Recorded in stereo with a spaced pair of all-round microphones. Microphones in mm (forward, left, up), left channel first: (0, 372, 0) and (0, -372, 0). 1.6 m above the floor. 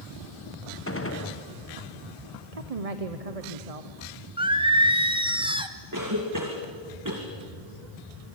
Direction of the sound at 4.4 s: 5° right (ahead or behind).